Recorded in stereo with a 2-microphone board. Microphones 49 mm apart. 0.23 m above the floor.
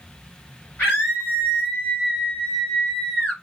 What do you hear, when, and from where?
0.8 s a scream: 45° left (ahead or behind), 3 m; by 3.3 s 25° left (ahead or behind), 3.5 m